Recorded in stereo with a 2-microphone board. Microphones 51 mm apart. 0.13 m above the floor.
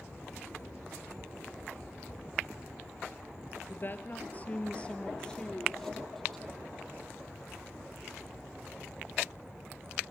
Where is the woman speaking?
45° left (ahead or behind), 2 m; by 6.7 s 5° left (ahead or behind), 4.5 m.